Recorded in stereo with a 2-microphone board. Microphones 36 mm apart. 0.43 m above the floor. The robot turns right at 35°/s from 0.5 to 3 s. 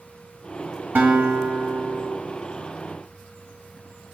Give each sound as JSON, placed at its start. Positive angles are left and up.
{"t": 0.9, "sound": "a guitar", "azimuth_deg": -85, "distance_m": 1.7}